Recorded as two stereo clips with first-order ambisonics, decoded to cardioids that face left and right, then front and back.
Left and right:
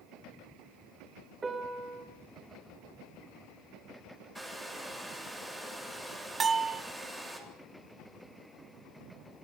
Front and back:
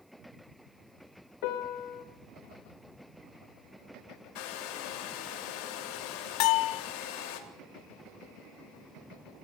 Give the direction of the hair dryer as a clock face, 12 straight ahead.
12 o'clock.